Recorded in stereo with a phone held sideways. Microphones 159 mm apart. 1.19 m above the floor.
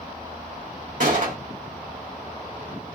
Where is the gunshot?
70° right (ahead or behind), 2.5 m.